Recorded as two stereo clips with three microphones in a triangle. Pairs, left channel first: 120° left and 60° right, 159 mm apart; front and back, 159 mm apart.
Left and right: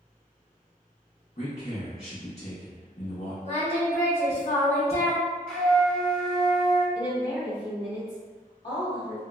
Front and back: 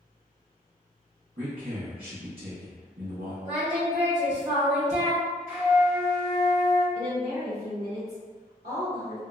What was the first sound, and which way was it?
A man speaking, 160° left.